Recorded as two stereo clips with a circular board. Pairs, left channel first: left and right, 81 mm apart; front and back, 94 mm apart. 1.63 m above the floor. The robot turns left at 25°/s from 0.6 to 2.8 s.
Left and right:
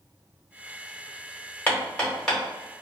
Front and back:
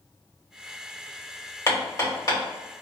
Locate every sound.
1.7 s hammering: 30° left, 1.5 m; by 2.4 s 10° left, 1.5 m